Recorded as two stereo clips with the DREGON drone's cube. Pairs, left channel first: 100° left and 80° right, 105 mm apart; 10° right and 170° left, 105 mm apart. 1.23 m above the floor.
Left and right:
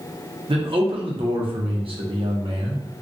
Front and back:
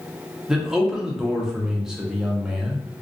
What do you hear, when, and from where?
0.5 s a man speaking: 105° right, 0.7 m